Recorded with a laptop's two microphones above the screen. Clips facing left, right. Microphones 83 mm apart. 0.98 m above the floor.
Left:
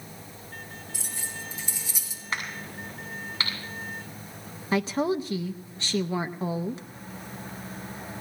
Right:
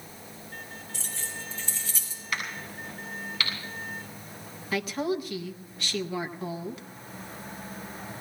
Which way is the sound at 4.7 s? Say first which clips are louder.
Left 4 dB; 30° left (ahead or behind).